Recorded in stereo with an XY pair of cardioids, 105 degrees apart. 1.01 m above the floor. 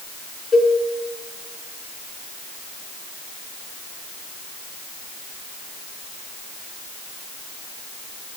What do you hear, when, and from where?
0.5 s a cowbell: 40° left, 2.5 m